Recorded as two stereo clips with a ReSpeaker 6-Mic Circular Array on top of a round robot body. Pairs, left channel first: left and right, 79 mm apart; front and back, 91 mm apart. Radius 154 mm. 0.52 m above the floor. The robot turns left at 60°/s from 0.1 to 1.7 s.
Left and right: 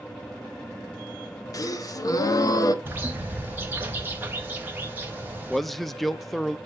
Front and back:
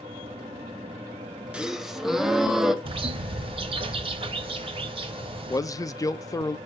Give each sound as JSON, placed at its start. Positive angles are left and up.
{"t": 1.5, "sound": "a gasp", "azimuth_deg": 105, "distance_m": 1.3}
{"t": 2.9, "sound": "a bird", "azimuth_deg": -155, "distance_m": 1.1}
{"t": 5.5, "sound": "a man speaking", "azimuth_deg": 5, "distance_m": 0.8}